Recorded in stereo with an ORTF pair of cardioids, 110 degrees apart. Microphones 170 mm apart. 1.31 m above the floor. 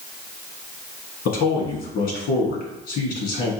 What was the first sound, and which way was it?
A man speaking, 65° left.